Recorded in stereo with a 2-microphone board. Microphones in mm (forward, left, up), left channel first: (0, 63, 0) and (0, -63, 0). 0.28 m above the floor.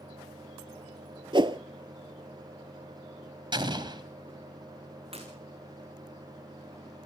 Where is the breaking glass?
50° right (ahead or behind), 6 m.